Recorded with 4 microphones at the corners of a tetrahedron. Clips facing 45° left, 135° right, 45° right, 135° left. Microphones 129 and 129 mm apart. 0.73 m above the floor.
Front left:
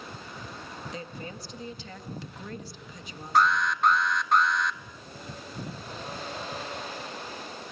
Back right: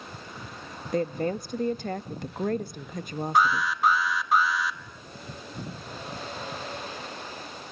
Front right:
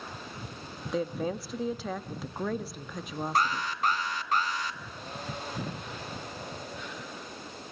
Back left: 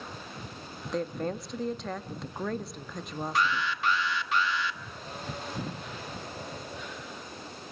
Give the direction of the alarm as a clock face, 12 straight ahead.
2 o'clock.